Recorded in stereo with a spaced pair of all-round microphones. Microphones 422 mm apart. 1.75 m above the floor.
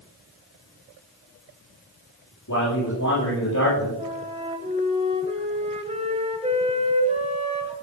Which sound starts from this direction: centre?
A flute, at 4.0 s.